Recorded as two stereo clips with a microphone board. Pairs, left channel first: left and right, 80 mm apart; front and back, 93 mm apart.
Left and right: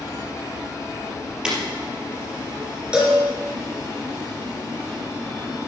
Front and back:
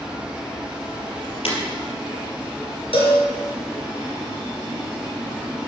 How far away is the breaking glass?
About 4 m.